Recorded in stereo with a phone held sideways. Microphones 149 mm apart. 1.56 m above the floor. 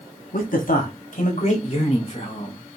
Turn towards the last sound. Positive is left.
turn(degrees=40)  # may be behind; listen again after turning